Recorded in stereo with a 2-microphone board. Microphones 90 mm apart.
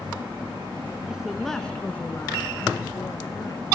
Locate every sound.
1.1 s a woman speaking: 10° right (ahead or behind), 1.1 m; by 3.7 s 50° left (ahead or behind), 1.7 m